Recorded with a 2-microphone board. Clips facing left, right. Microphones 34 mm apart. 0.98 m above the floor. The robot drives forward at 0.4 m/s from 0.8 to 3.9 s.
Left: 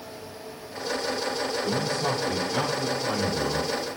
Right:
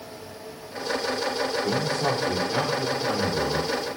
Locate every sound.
1.6 s a man speaking: 35° right (ahead or behind), 2 m; by 3.7 s 25° right (ahead or behind), 3 m